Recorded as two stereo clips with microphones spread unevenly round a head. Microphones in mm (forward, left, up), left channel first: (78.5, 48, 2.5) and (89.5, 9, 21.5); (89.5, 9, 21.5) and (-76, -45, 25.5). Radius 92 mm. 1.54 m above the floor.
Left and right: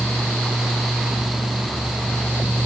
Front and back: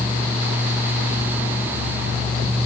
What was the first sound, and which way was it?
Only background noise.